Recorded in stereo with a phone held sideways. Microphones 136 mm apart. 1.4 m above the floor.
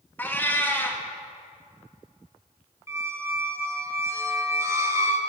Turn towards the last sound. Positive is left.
turn(degrees=-20)  # may be behind; listen again after turning